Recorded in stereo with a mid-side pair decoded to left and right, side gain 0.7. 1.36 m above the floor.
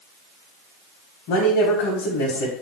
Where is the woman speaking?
70° left, 1.1 m.